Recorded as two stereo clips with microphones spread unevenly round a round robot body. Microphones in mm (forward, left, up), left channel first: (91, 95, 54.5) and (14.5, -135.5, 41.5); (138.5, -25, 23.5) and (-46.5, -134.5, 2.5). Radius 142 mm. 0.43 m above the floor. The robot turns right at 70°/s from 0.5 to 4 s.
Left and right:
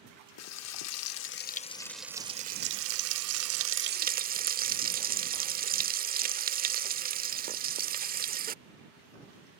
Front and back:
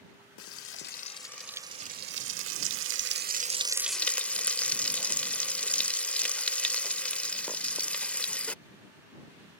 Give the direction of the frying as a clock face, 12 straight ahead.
10 o'clock.